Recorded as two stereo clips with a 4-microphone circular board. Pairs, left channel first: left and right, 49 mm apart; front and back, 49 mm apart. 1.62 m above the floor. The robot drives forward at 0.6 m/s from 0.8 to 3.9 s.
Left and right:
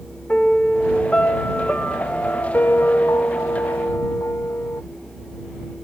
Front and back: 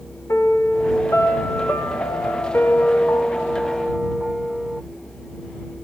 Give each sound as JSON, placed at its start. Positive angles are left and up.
{"t": 0.3, "sound": "a piano", "azimuth_deg": 25, "distance_m": 2.0}